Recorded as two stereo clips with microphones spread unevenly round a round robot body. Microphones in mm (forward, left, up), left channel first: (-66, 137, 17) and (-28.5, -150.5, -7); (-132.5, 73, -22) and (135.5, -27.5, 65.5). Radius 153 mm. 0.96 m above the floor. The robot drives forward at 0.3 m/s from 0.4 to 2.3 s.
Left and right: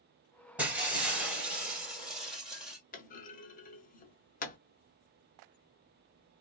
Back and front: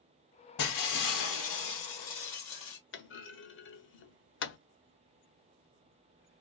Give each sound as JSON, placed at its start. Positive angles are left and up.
{"t": 0.6, "sound": "breaking glass", "azimuth_deg": -170, "distance_m": 1.7}
{"t": 2.9, "sound": "a clunk", "azimuth_deg": 110, "distance_m": 0.6}